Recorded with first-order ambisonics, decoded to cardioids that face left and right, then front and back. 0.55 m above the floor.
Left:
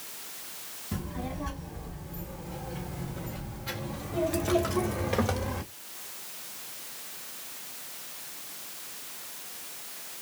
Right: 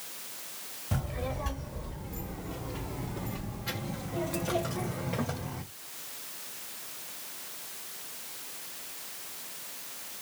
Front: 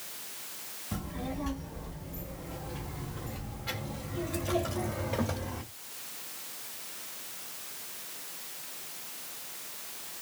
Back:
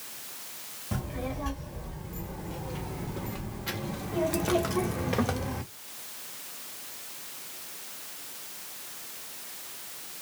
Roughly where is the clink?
No clink in this recording.